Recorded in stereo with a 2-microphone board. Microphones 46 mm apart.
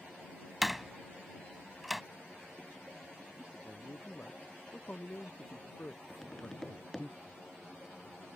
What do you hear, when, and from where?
0.6 s a door slam: centre (ahead or behind)
3.5 s a man speaking: 35° left (ahead or behind)
6.1 s tapping: 10° left (ahead or behind)